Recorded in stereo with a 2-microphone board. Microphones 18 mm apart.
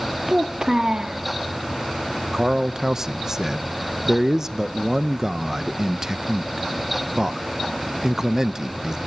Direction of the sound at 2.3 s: 20° right (ahead or behind).